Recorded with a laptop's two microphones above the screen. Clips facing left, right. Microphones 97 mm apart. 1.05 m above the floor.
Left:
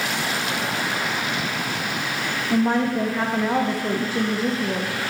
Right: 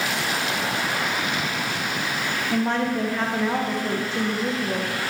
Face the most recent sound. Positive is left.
turn(degrees=10)  # may be behind; listen again after turning